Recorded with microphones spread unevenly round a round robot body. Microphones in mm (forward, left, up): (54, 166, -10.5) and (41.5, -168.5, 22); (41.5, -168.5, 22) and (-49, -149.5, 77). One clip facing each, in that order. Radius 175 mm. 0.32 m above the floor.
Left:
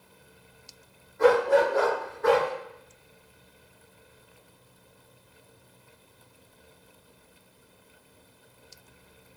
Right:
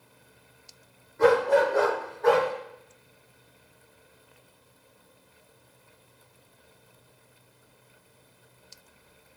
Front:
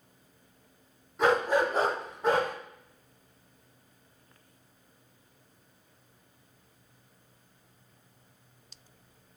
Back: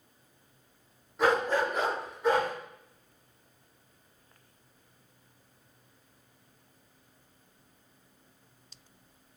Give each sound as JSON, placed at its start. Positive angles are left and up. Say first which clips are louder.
{"t": 1.2, "sound": "a dog barking", "louder": "even, front 1 dB", "azimuth_deg": -100, "distance_m": 1.2}